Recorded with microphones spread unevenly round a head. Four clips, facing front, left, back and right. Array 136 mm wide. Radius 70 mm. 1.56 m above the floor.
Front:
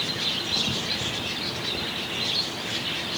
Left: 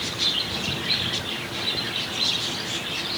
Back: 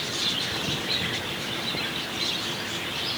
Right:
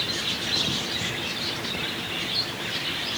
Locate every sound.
Only background noise.